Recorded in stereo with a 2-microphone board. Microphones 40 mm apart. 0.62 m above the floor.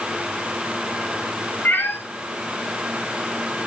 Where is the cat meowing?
55° left (ahead or behind), 1.8 m.